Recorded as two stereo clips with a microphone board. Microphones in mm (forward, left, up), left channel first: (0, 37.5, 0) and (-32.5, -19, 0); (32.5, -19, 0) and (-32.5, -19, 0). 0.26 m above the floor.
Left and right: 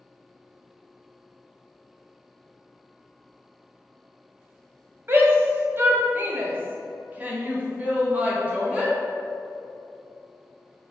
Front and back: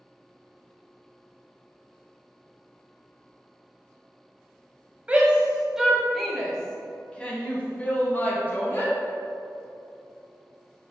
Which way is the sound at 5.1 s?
120° right.